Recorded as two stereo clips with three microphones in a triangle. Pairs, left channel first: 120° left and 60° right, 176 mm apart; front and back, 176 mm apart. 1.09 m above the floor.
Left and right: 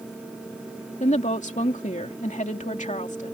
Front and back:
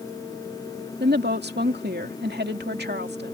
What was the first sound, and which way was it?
A woman speaking, 165° left.